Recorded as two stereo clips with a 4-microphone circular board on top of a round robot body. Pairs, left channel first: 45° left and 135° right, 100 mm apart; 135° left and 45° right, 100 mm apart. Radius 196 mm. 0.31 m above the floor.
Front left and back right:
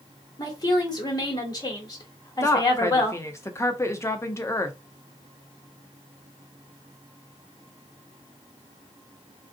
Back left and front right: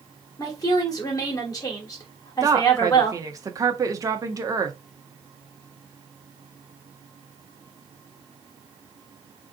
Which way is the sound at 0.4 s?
85° left.